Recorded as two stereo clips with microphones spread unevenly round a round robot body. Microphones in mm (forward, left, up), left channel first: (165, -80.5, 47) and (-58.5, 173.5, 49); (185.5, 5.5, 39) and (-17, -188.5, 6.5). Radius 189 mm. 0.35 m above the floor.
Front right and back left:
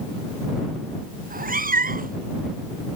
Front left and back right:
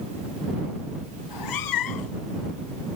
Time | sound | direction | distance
1.2 | a cat meowing | 65° left | ?